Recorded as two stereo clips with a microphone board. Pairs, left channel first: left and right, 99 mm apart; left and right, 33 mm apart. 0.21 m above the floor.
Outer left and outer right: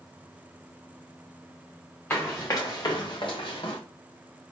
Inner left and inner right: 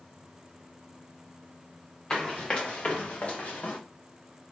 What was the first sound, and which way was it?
Running footsteps, 20° left (ahead or behind).